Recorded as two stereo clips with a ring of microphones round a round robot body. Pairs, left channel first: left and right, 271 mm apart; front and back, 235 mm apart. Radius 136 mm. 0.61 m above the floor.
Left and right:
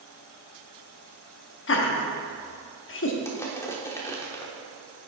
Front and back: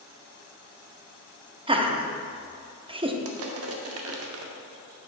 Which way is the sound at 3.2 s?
170° left.